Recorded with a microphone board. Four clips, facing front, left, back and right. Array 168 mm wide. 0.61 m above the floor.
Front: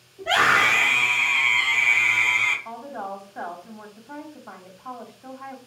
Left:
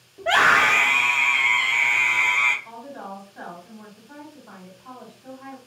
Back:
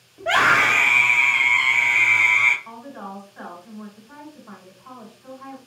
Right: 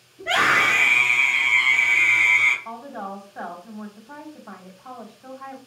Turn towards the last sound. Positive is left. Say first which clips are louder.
# right 3 dB, front 3 dB
turn(degrees=-40)